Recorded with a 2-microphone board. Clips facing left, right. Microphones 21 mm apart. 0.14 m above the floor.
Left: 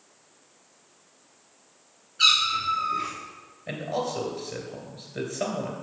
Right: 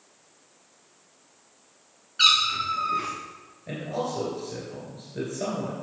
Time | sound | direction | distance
2.2 | a cat meowing | 50° right (ahead or behind) | 2.5 m
3.7 | a man speaking | 35° left (ahead or behind) | 2.5 m